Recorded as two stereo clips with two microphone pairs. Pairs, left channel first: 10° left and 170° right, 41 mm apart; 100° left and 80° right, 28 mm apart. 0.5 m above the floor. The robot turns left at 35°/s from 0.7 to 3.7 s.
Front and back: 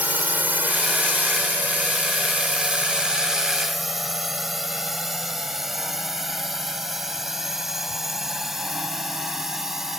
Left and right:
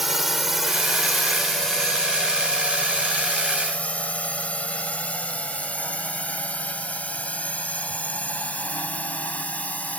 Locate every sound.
0.0 s a drone: 160° right; by 10.0 s 105° left